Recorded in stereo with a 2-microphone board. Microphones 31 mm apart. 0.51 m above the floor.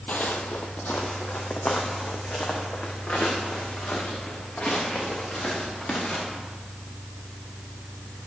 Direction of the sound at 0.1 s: 60° left (ahead or behind).